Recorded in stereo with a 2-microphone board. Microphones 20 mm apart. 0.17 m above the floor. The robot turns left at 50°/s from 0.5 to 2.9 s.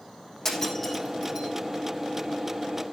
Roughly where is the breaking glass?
Left.